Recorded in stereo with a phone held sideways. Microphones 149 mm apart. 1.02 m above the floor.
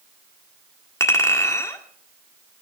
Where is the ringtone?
No ringtone in this recording.